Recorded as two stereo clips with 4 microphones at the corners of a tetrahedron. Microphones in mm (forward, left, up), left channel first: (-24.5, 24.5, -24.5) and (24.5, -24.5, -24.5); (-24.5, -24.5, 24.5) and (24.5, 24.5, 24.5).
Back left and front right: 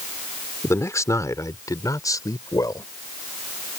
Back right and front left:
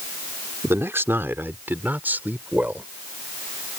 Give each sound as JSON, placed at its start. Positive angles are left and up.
{"t": 0.6, "sound": "a man speaking", "azimuth_deg": 95}